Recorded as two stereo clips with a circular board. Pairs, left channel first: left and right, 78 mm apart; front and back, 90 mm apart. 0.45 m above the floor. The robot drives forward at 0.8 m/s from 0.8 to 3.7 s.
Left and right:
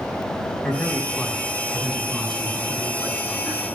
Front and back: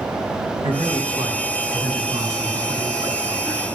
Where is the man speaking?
165° left, 3.5 m; by 3.6 s 170° left, 6 m.